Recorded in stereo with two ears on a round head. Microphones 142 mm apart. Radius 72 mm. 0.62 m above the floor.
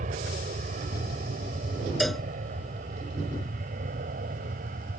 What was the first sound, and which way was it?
An aircraft, 50° right (ahead or behind).